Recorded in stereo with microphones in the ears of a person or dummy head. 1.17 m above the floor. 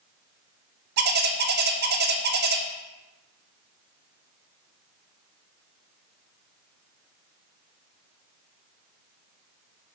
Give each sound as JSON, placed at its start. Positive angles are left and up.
{"t": 1.0, "sound": "a bird", "side_deg": -50, "distance_m": 0.6}